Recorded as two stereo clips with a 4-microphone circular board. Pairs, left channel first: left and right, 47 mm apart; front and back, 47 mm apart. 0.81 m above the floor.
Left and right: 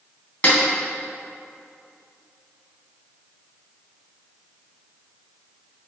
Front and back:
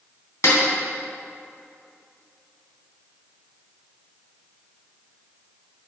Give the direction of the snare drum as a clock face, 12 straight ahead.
11 o'clock.